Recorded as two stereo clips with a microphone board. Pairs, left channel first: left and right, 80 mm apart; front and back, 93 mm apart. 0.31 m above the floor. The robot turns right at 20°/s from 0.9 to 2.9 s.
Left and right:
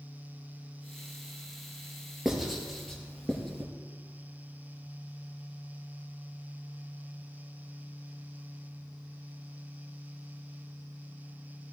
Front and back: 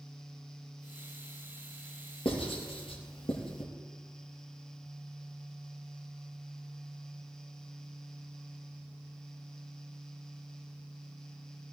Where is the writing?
Straight ahead, 3.5 m; by 3.7 s 10° left, 3.5 m.